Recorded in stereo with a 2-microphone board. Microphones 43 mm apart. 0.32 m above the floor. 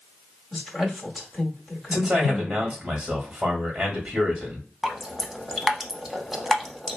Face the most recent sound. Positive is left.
turn(degrees=-10)  # may be behind; listen again after turning